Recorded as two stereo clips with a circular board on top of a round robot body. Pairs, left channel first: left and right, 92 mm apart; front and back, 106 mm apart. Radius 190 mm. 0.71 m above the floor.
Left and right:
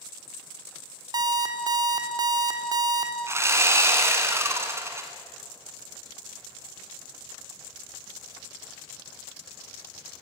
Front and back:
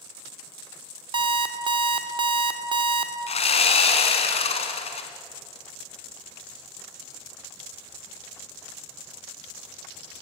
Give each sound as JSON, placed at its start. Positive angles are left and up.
{"t": 1.1, "sound": "an alarm clock", "azimuth_deg": -135, "distance_m": 1.3}
{"t": 3.3, "sound": "sawing", "azimuth_deg": -30, "distance_m": 1.5}